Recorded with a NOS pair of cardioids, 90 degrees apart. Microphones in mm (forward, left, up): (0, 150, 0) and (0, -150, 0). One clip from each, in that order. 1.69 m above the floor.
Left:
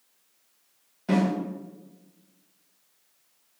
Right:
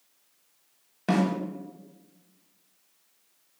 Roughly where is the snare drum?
Ahead right.